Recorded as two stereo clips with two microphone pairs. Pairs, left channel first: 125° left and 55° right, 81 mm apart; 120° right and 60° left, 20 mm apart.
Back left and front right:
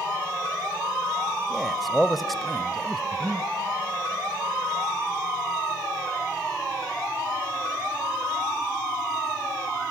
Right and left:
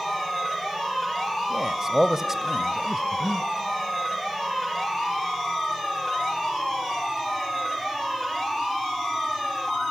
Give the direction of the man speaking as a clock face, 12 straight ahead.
11 o'clock.